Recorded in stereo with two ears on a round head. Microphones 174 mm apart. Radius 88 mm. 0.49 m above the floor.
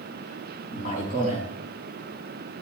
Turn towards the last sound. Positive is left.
turn(degrees=45)  # may be behind; listen again after turning